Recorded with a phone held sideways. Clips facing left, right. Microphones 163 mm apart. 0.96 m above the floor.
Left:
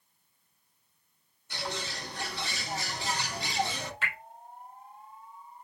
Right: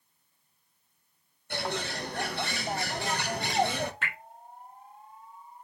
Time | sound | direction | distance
1.5 | a bird | 55° right (ahead or behind) | 0.7 m
4.0 | dripping | 50° right (ahead or behind) | 2.5 m